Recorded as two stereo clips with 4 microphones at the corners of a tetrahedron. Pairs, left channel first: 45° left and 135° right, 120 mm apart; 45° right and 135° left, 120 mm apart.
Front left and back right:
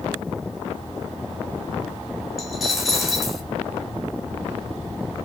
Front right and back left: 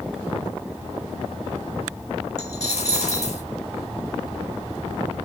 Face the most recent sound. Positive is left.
turn(degrees=-45)